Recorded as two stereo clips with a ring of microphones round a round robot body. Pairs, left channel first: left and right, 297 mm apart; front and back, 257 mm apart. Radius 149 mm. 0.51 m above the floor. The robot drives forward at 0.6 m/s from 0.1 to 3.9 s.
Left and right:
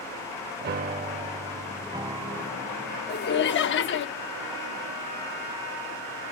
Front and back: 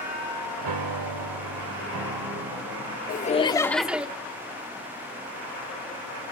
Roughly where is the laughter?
Ahead left.